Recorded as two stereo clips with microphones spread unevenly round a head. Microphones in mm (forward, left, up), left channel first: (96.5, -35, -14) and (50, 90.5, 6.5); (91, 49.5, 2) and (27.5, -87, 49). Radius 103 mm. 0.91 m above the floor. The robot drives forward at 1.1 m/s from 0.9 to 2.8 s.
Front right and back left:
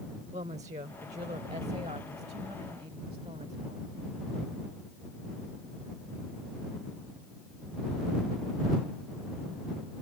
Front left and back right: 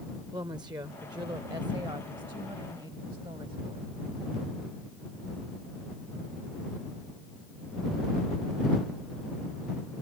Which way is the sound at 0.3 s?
170° left.